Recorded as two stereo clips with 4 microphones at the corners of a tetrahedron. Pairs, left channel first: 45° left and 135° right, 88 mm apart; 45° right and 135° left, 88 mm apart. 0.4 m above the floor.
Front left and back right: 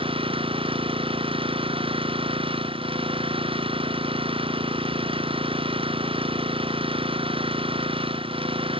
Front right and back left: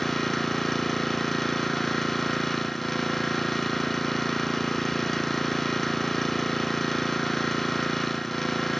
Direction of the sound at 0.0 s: 135° right.